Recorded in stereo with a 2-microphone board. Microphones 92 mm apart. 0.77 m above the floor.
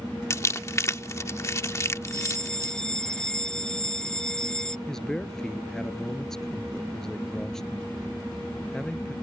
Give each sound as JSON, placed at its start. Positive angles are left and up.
{"t": 0.3, "sound": "crumpling", "side_deg": 35}
{"t": 2.1, "sound": "a fire alarm", "side_deg": 10}
{"t": 4.9, "sound": "a man speaking", "side_deg": 5}